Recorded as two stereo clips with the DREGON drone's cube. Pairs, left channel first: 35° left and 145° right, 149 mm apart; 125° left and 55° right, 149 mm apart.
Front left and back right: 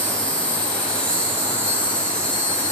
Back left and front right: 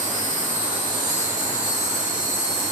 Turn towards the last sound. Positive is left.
turn(degrees=-45)